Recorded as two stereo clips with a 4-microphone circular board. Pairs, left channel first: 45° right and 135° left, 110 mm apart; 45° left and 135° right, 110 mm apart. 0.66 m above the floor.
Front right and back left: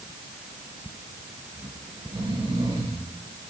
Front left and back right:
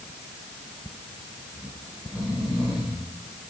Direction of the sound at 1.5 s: 145° left.